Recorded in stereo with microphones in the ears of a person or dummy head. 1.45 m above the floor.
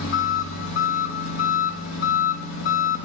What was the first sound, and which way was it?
An engine running, 65° left (ahead or behind).